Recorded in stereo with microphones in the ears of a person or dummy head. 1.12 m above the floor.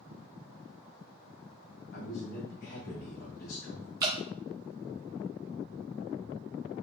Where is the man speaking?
55° left (ahead or behind), 0.9 m.